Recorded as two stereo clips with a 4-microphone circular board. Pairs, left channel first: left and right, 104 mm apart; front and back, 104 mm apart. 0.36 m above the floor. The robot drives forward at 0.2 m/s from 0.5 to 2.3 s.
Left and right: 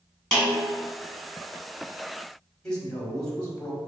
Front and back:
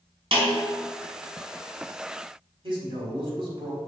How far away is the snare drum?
About 1.8 m.